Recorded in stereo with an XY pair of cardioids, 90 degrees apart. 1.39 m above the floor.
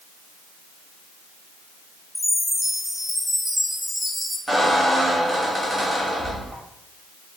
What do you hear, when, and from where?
2.1 s a chime: 5° right, 1.7 m
4.5 s a squeak: 15° right, 1.7 m